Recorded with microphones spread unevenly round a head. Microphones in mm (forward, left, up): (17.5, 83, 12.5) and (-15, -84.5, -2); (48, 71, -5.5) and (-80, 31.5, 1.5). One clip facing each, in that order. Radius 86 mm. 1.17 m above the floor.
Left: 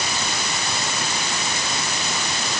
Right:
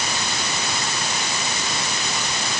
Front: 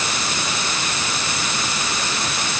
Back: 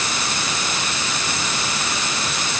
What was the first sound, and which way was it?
Only background noise.